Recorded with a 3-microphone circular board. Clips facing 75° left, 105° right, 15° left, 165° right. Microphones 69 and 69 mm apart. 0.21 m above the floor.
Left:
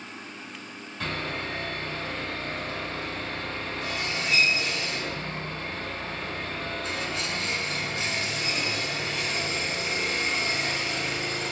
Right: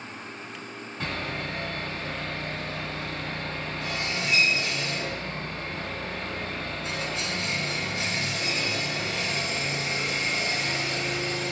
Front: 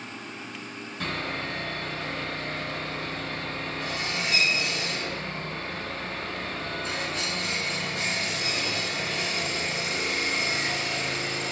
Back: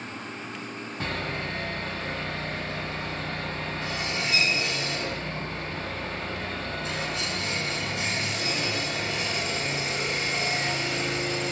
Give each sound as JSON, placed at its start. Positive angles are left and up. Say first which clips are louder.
{"t": 1.0, "sound": "sawing", "louder": "left 1 dB, even", "azimuth_deg": -150, "distance_m": 1.9}